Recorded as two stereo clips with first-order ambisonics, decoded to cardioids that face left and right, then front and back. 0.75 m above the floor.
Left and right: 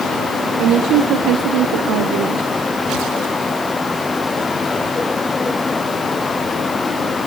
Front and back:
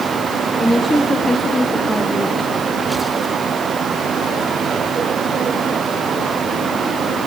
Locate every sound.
0.6 s a woman speaking: 85° right, 0.9 m